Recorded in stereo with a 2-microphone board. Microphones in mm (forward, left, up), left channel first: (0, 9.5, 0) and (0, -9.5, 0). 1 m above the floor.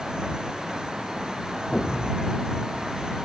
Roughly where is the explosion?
Left.